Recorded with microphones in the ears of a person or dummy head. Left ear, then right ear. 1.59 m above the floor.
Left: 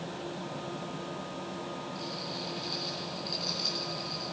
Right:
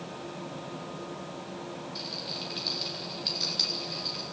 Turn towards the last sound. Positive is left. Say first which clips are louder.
# right 5 dB
turn(degrees=-40)  # may be behind; listen again after turning